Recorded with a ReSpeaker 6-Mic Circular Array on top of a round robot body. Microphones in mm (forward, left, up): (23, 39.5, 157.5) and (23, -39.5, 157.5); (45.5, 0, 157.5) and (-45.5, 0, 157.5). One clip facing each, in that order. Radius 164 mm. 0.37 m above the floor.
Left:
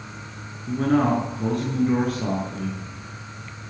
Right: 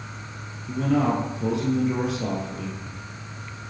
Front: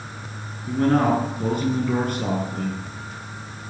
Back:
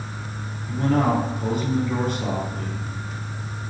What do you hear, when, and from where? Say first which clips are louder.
0.7 s a man speaking: left 2 dB, front 2 dB; 45° left, 7.5 m